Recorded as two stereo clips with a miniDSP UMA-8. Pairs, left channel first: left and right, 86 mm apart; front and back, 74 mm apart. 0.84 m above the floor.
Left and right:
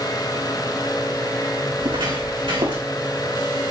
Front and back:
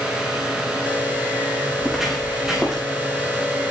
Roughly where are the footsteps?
Right.